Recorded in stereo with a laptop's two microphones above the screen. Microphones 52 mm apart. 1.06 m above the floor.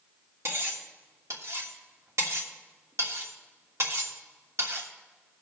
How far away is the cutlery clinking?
About 1.4 m.